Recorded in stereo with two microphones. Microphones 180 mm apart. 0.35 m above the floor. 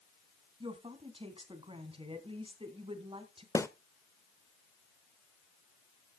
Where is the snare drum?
15° left (ahead or behind), 0.8 m.